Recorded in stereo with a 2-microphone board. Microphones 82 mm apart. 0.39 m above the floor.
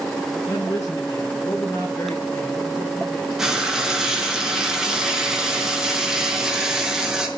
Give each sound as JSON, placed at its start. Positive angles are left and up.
{"t": 0.5, "sound": "a man speaking", "side_deg": 40, "distance_m": 8.5}
{"t": 3.4, "sound": "frying", "side_deg": -5, "distance_m": 5.5}